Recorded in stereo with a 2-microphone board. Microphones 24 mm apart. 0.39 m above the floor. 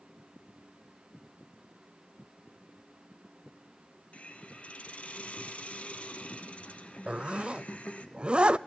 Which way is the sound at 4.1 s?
65° left (ahead or behind).